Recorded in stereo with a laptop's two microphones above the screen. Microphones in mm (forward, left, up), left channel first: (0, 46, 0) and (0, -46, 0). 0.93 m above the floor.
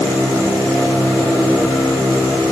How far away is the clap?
No clap in this recording.